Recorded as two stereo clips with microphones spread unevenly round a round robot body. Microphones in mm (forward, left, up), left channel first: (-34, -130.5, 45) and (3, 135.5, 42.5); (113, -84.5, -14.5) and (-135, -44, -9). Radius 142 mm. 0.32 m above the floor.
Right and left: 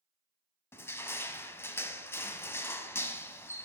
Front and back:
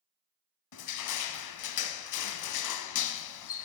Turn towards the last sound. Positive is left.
turn(degrees=-15)